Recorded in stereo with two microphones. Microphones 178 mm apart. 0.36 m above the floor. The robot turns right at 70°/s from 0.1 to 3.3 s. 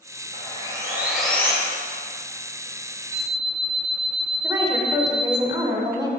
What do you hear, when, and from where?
0.3 s sawing: 60° right, 1.8 m; by 1.5 s 25° left, 1.8 m
3.1 s an alarm clock: 10° left (ahead or behind), 1.8 m; by 5.4 s 20° left (ahead or behind), 1.8 m
4.4 s a woman speaking: 20° right (ahead or behind), 1.0 m